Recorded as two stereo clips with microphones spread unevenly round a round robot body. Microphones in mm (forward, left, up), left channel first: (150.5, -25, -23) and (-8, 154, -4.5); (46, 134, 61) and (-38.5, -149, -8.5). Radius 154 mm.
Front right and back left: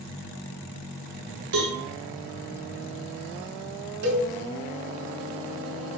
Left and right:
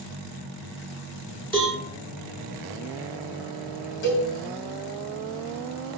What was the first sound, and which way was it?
A cowbell, 160° left.